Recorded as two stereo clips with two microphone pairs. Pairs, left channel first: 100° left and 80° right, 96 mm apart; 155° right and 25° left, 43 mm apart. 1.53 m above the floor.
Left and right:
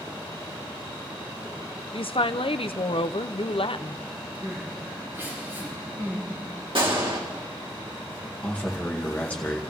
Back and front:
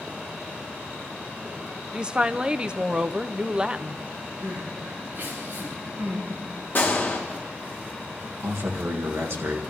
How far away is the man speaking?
About 2 m.